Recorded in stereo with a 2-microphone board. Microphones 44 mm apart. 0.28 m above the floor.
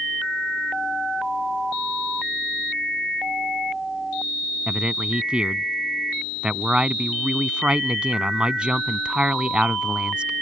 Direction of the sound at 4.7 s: 25° right (ahead or behind).